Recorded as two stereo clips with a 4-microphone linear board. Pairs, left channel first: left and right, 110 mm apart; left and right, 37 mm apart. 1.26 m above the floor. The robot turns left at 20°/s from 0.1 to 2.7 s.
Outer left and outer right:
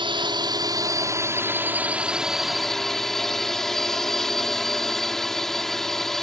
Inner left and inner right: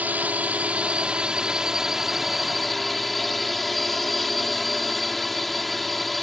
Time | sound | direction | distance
0.0 | a drone | 130° right | ?